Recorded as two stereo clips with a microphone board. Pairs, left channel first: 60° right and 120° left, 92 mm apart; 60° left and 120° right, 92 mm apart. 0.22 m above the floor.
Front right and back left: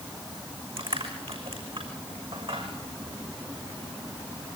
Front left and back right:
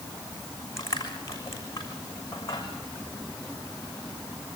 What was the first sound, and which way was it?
Crushing, 115° left.